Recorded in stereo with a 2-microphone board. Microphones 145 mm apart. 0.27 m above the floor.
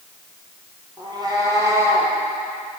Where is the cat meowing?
30° right (ahead or behind), 3 m; by 2.1 s 15° right (ahead or behind), 3.5 m.